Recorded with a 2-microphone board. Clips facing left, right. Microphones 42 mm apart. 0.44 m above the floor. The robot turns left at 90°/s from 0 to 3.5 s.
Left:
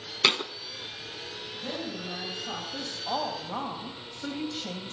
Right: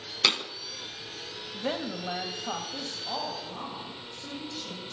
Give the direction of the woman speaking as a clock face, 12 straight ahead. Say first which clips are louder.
Right 4 dB; 2 o'clock.